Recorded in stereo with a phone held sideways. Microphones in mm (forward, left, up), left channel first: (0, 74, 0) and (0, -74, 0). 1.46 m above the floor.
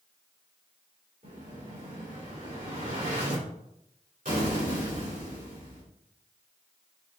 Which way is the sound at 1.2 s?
70° right (ahead or behind).